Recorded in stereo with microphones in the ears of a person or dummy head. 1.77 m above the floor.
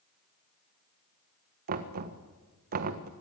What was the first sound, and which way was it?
Knocking, 45° right (ahead or behind).